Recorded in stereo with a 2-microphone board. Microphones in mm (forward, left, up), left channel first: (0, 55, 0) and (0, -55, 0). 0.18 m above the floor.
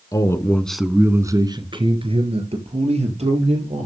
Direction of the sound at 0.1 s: 35° left (ahead or behind).